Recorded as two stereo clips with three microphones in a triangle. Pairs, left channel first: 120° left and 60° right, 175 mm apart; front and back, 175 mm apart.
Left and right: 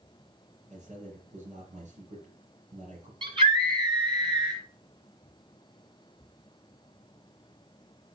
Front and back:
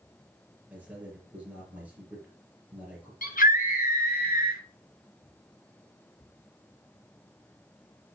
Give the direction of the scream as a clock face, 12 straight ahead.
12 o'clock.